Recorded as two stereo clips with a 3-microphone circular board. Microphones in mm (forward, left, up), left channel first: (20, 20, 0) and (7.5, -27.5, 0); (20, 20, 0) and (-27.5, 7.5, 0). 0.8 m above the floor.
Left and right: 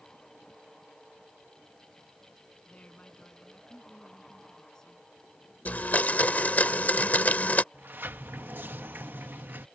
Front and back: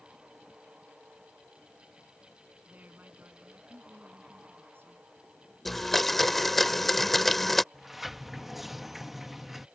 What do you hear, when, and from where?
2.7 s a woman speaking: 140° left; by 5.1 s 155° left
5.7 s a blender: 95° left
7.7 s a sliding door: 80° right